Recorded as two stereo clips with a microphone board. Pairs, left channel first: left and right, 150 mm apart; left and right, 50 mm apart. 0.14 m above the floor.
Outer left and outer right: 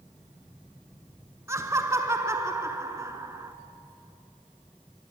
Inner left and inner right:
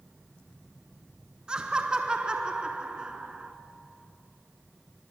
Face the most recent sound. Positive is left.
turn(degrees=-20)  # may be behind; listen again after turning